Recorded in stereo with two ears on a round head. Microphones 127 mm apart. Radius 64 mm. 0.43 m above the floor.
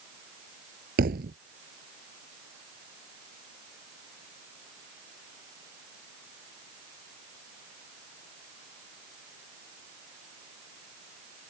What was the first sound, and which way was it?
A thud, 75° right (ahead or behind).